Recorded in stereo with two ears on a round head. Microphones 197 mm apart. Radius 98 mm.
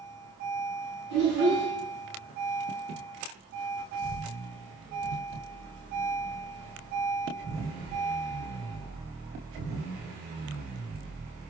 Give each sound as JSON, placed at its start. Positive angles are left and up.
{"t": 1.1, "sound": "a child speaking", "side_deg": 55, "distance_m": 2.5}